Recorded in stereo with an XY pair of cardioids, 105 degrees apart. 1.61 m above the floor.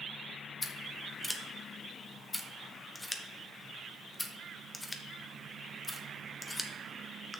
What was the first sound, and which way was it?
Scissors, 15° left.